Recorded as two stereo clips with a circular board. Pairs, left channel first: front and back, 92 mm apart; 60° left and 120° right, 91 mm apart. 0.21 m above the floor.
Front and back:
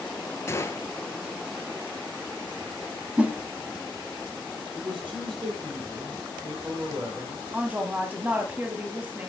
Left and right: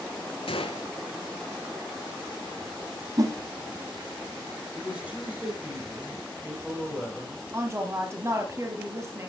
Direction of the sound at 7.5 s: 125° right.